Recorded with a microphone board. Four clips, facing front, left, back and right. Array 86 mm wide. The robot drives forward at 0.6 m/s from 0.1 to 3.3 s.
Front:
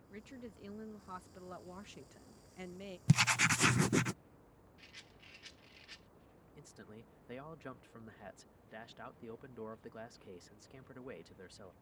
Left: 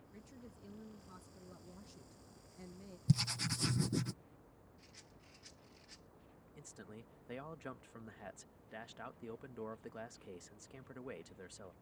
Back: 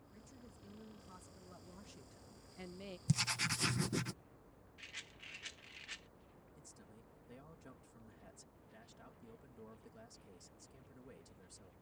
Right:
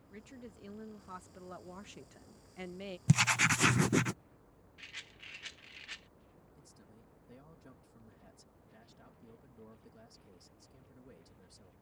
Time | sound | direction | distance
0.1 | a woman speaking | 30° right | ?
3.1 | writing | 50° right | ?
4.8 | a rattle | 110° right | ?
6.5 | a man speaking | 50° left | ?